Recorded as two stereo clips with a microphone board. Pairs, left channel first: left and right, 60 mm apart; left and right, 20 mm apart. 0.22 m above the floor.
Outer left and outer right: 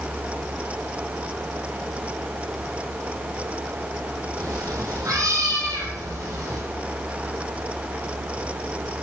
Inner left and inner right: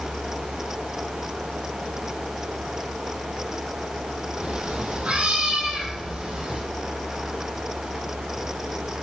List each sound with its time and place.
4.4 s a cat meowing: 75° right (ahead or behind), 4.5 m; by 6.6 s 70° right (ahead or behind), 5.5 m